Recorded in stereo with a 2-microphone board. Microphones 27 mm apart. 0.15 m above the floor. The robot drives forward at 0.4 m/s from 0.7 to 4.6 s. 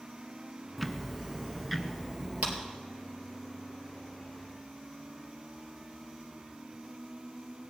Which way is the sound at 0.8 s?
Centre (ahead or behind).